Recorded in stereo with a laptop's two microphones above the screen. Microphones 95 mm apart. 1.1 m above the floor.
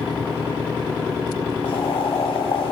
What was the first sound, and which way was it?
Boiling, 70° left (ahead or behind).